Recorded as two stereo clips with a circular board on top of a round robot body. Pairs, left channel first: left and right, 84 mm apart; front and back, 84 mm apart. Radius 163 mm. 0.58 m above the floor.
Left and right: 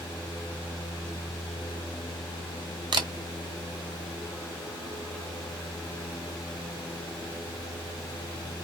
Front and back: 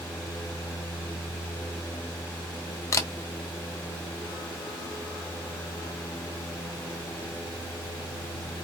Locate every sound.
2.9 s a camera shutter: 55° right, 0.5 m